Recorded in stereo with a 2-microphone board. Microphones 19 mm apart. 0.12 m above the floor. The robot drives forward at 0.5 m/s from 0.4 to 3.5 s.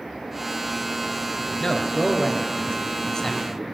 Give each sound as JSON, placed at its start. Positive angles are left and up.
{"t": 1.6, "sound": "a man speaking", "side_deg": 40, "distance_m": 2.0}